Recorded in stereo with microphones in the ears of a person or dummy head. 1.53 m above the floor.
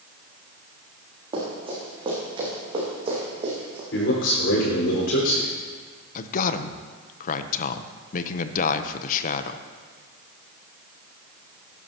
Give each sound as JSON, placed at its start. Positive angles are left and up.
{"t": 1.3, "sound": "running footsteps", "side_deg": -35, "distance_m": 7.0}
{"t": 3.9, "sound": "a man speaking", "side_deg": 65, "distance_m": 5.0}
{"t": 6.2, "sound": "a man speaking", "side_deg": 50, "distance_m": 0.8}